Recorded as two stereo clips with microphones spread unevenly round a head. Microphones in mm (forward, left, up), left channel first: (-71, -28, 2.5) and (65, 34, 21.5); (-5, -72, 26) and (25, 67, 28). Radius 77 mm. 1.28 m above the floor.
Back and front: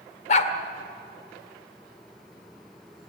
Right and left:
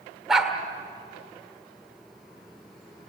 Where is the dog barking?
165° left, 1.7 m.